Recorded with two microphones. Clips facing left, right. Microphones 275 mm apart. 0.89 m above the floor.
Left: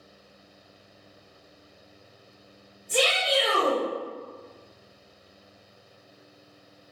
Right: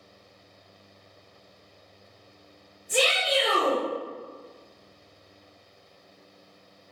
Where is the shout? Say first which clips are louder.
Even; 5° right (ahead or behind), 1.7 m.